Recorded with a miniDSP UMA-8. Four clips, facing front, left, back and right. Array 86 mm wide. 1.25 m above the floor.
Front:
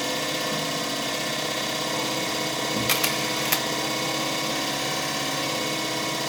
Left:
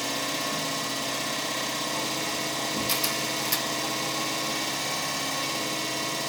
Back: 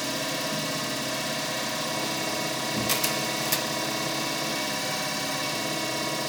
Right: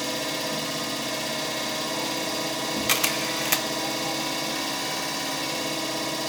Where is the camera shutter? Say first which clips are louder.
Right 3 dB, front 2 dB; 55° right, 0.5 m.